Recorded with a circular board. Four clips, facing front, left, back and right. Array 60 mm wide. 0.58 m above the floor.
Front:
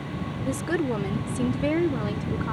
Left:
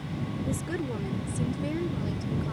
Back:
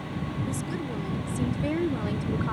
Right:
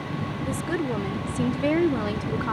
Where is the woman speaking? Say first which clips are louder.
Right 6 dB, front 6 dB; 20° right; by 2.5 s 90° right.